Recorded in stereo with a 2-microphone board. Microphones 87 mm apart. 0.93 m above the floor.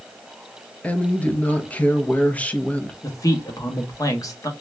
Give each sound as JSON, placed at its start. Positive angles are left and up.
{"t": 0.8, "sound": "a woman speaking", "side_deg": 15, "distance_m": 0.7}
{"t": 3.0, "sound": "a man speaking", "side_deg": 40, "distance_m": 1.0}